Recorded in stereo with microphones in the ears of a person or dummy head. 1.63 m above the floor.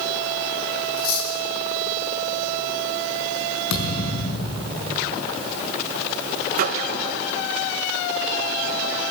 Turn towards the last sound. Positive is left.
turn(degrees=-50)  # may be behind; listen again after turning